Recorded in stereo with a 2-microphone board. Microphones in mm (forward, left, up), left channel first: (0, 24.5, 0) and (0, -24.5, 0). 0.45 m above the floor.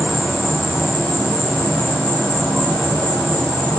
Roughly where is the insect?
Left.